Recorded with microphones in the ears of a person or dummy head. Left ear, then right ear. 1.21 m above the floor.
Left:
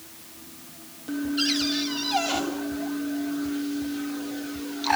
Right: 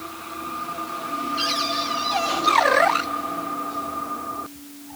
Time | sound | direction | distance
1.4 | a cupboard door | centre (ahead or behind) | 7.5 m